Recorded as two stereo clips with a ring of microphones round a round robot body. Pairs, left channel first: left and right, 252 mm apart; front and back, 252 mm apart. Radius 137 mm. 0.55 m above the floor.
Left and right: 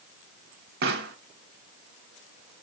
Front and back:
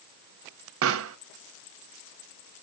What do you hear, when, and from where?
0.8 s a pop: 145° right, 0.7 m